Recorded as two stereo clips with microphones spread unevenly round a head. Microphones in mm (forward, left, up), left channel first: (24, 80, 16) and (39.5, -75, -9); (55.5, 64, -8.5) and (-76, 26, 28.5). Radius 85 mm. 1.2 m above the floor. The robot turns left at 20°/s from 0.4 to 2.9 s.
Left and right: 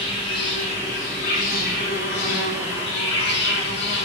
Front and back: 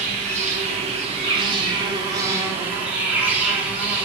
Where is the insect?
160° left, 1.5 m; by 4.1 s 110° left, 1.5 m.